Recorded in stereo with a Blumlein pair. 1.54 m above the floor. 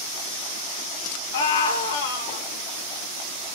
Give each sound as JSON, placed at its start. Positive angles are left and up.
{"t": 1.3, "sound": "a scream", "azimuth_deg": 65, "distance_m": 4.0}